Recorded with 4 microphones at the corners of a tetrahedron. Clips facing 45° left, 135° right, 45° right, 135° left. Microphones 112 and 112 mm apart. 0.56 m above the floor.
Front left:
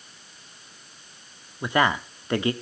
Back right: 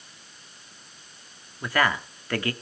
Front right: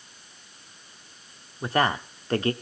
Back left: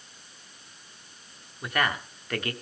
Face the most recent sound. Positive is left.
turn(degrees=-10)